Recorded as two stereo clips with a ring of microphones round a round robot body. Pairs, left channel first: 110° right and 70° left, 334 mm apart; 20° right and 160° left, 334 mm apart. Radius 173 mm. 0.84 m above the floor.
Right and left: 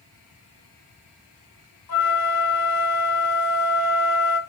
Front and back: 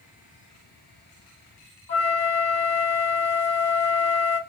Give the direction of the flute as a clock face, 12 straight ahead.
3 o'clock.